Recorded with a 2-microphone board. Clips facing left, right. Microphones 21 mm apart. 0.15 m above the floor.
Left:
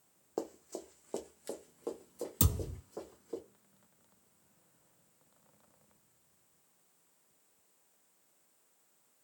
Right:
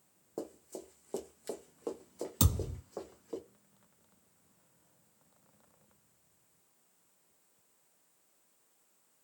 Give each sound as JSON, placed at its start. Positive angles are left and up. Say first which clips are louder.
{"t": 0.4, "sound": "running footsteps", "louder": "left 3 dB", "side_deg": 50, "distance_m": 0.6}
{"t": 2.4, "sound": "a thud", "louder": "right 2 dB", "side_deg": -20, "distance_m": 1.6}